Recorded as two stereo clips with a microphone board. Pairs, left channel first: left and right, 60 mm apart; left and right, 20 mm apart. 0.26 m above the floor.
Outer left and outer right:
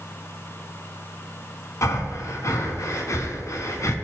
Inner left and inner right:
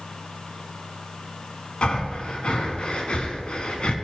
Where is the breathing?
55° left (ahead or behind), 1.2 m.